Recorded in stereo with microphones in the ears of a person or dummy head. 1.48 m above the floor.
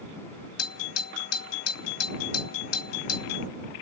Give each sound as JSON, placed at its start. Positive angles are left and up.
{"t": 0.6, "sound": "a doorbell", "side_deg": 65}